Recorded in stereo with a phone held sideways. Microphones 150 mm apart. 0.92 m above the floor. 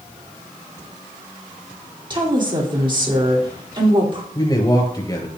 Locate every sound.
2.1 s a woman speaking: 30° right (ahead or behind), 2.5 m
4.3 s a man speaking: 30° left (ahead or behind), 4.5 m